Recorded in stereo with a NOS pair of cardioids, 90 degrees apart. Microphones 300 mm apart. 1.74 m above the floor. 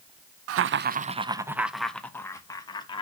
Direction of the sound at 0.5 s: 55° right.